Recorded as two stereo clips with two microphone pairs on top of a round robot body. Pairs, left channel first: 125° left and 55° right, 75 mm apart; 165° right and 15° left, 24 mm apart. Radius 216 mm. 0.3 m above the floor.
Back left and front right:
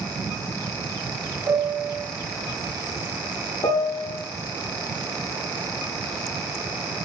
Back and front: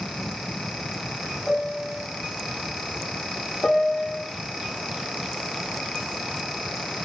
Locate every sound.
1.5 s a piano: 85° right, 2.5 m
3.6 s a piano: 160° left, 1.1 m